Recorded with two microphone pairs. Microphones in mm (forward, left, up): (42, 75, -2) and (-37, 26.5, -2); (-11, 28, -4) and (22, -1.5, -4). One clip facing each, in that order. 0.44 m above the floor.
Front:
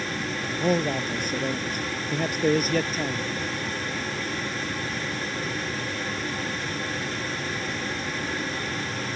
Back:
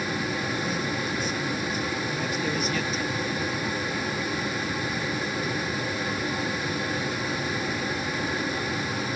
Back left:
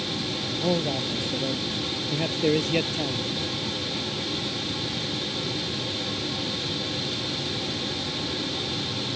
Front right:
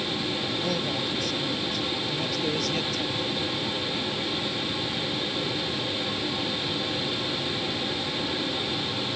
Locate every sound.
0.6 s a man speaking: 65° left; by 3.4 s 80° left